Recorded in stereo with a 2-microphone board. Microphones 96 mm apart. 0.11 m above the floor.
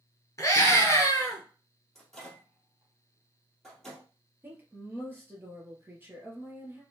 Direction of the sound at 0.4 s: 35° left (ahead or behind).